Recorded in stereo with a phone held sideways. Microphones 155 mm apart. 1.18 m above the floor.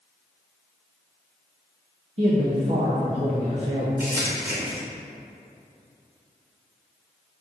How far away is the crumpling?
About 1.3 m.